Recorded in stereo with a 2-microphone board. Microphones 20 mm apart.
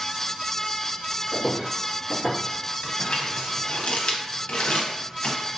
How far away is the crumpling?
About 0.7 m.